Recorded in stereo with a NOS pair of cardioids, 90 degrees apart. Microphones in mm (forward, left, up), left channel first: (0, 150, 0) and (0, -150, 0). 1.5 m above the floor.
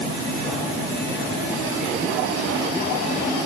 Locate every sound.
Only background noise.